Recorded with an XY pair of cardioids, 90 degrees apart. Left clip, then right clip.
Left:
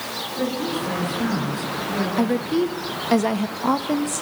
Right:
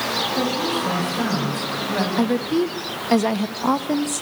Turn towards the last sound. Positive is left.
turn(degrees=-10)